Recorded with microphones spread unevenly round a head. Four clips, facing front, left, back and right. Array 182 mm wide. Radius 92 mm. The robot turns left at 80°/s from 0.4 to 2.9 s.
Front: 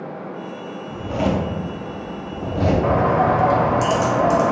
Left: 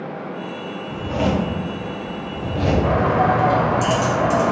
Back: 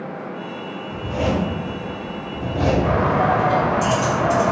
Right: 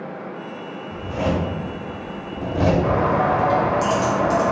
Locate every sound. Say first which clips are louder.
0.9 s a zipper: left 2 dB, front 1 dB; 60° left, 0.8 m; by 2.7 s 85° right, 0.8 m
2.8 s a bird: left 1 dB, front 1 dB; 5° left, 0.7 m; by 4.5 s straight ahead, 0.7 m